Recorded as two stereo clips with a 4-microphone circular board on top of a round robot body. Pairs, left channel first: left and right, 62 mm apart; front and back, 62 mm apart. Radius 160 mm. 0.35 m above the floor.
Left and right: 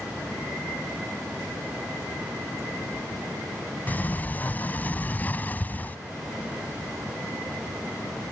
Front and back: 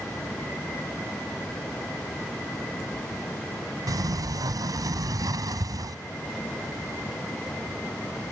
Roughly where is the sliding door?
Behind left.